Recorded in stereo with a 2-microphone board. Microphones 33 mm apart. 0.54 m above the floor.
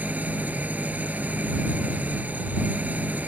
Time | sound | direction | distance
0.0 | an engine running | 50° right (ahead or behind) | ?